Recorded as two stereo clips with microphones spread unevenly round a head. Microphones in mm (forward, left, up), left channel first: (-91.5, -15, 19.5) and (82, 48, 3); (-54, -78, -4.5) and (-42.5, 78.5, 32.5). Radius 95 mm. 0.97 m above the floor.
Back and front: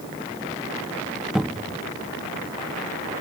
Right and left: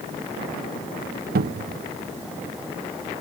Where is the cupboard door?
105° left.